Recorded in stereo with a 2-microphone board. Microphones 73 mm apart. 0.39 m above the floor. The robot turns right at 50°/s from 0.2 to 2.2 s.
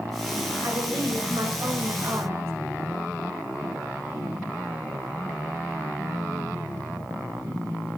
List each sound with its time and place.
0.6 s a woman speaking: 130° right, 1.2 m; by 2.5 s 55° right, 1.2 m